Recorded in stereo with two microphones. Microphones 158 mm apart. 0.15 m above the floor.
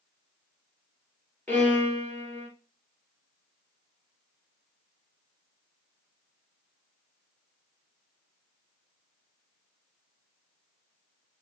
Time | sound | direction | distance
1.5 | a violin | 10° left (ahead or behind) | 2.5 m